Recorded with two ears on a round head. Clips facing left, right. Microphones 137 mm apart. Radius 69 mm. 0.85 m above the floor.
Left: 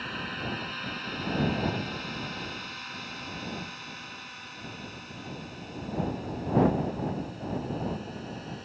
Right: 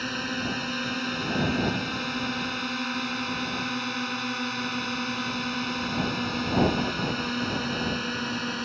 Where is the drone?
50° right (ahead or behind); by 8.7 s 75° right (ahead or behind).